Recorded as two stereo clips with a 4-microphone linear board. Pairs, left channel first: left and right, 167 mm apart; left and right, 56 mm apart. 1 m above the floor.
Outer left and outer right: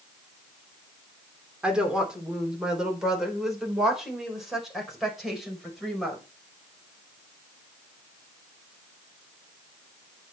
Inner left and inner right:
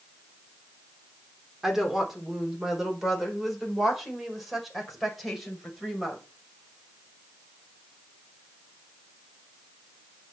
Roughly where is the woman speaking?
Centre.